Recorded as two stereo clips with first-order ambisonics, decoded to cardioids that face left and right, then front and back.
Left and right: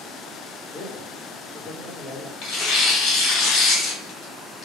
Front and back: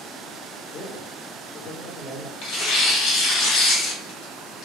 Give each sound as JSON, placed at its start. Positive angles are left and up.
{"t": 0.7, "sound": "a man speaking", "azimuth_deg": 20, "distance_m": 2.0}
{"t": 2.4, "sound": "tearing paper", "azimuth_deg": 40, "distance_m": 1.7}